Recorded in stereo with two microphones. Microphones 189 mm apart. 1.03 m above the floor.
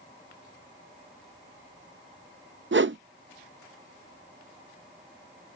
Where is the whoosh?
70° right (ahead or behind).